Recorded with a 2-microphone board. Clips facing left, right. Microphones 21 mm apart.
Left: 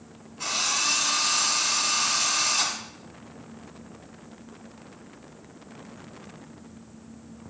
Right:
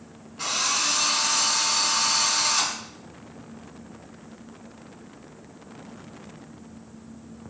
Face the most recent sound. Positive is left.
turn(degrees=-45)  # may be behind; listen again after turning